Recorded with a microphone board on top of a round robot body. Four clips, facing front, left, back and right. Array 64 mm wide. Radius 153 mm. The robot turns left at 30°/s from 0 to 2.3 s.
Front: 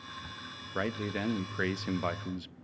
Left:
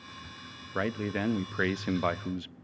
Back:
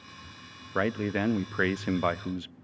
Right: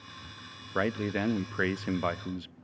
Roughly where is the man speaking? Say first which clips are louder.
Right 2 dB, back 6 dB; behind right.